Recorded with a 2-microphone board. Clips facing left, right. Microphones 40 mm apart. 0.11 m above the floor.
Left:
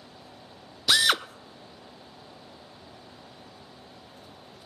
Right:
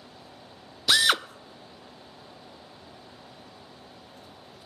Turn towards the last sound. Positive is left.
turn(degrees=-5)  # may be behind; listen again after turning